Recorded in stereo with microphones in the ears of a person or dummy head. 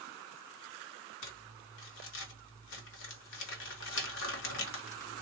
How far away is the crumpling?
About 1.4 m.